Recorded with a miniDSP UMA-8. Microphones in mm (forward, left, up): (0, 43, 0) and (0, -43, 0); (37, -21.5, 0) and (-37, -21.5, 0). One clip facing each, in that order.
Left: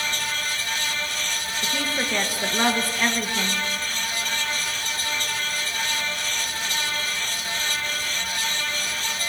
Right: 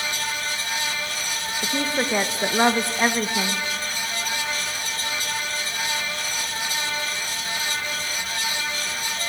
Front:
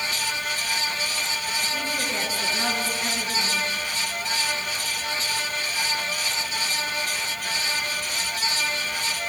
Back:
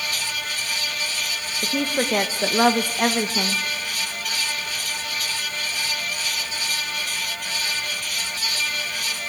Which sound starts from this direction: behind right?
A woman speaking, at 1.6 s.